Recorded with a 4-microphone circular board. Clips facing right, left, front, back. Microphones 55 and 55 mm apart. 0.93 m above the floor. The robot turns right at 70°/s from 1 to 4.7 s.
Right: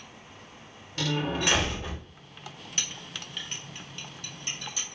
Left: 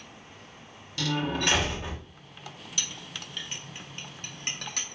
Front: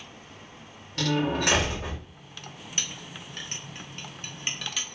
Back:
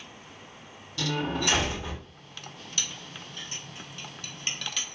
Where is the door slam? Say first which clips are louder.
Even, front 4 dB; 35° right, 1.1 m; by 2.0 s 35° left, 1.1 m.